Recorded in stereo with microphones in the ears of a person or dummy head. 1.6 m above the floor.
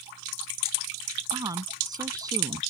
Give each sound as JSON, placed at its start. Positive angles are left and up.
{"t": 1.3, "sound": "a woman speaking", "side_deg": -20}